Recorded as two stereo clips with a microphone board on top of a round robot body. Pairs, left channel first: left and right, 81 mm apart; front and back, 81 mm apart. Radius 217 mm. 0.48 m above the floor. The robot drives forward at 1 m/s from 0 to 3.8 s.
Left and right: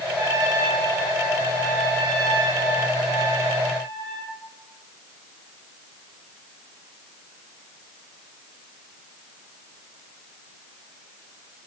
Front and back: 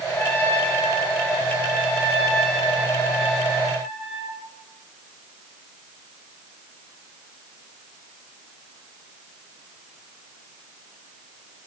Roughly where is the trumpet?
Ahead right.